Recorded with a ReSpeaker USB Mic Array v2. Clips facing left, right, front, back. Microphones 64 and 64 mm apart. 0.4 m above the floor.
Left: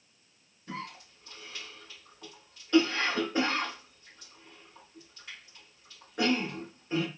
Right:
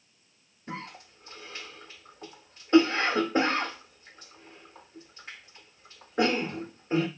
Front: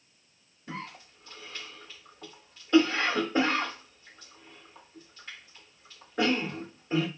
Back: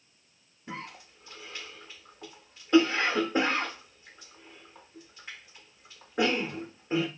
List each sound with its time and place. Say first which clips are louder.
0.7 s a cough: right 1 dB, front 1 dB; 120° right, 0.9 m